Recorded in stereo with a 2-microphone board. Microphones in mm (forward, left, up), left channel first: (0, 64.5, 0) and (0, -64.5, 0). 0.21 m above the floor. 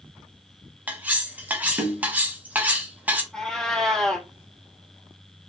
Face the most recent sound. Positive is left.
turn(degrees=5)  # may be behind; listen again after turning